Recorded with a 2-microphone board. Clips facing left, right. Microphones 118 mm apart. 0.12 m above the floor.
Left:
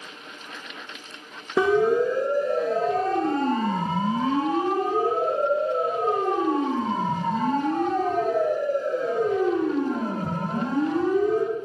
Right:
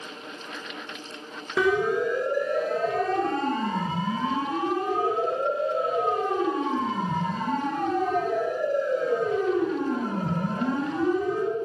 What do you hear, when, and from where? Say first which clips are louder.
1.6 s a siren: left 4 dB; 30° left (ahead or behind), 2.5 m; by 11.4 s 45° left (ahead or behind), 9 m